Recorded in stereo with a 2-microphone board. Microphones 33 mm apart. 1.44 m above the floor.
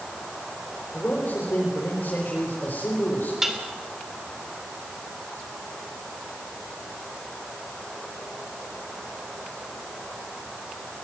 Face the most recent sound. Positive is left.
turn(degrees=-15)  # may be behind; listen again after turning